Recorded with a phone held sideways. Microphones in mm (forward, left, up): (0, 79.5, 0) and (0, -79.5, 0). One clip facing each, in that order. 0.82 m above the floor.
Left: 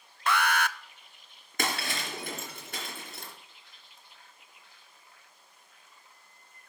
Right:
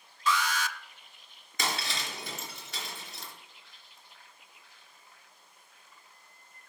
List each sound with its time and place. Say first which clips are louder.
0.3 s an alarm: left 3 dB; 60° left (ahead or behind), 0.6 m
1.6 s breaking glass: left 2 dB; 55° left (ahead or behind), 3 m